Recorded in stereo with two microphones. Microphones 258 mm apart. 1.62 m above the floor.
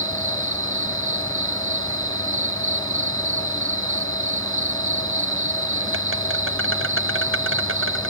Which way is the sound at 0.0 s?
50° right (ahead or behind).